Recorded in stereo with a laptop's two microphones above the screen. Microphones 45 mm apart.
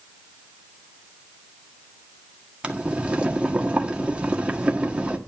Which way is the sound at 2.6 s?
25° right (ahead or behind).